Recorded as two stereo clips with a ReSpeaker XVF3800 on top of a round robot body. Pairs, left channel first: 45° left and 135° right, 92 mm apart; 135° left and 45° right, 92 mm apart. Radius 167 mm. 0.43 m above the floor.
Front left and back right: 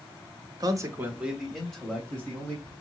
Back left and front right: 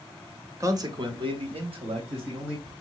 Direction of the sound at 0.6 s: 100° right.